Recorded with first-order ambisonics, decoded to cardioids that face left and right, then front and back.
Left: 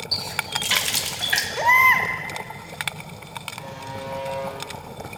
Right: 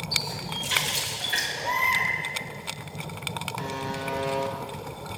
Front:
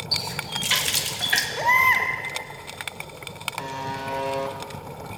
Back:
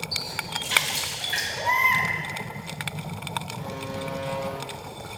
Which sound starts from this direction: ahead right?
A buzzer, at 3.6 s.